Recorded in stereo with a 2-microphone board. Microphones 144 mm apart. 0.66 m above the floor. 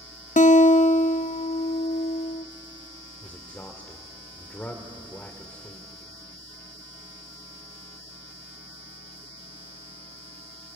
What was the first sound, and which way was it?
A guitar, 60° left (ahead or behind).